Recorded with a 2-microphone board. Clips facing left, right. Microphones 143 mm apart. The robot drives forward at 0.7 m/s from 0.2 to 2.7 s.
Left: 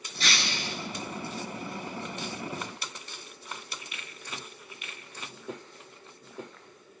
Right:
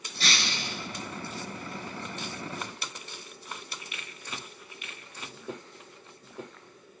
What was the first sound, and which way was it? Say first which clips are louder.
Breaking glass: even; 40° right (ahead or behind).